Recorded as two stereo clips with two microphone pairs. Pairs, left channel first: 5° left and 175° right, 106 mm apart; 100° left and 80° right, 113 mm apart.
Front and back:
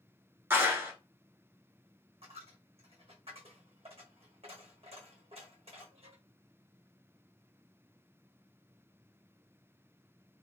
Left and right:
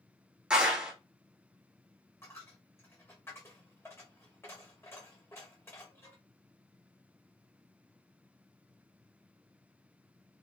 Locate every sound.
0.5 s a clap: 150° right, 0.9 m
2.2 s a dropped coin: 165° left, 1.2 m